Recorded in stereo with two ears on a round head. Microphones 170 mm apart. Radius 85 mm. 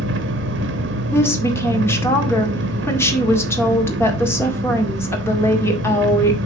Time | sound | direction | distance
0.0 | an engine running | 70° right (ahead or behind) | 1.5 m
1.1 | a woman speaking | 15° left (ahead or behind) | 1.8 m